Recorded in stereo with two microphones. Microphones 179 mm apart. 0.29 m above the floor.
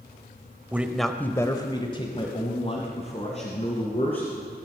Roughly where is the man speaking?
Centre.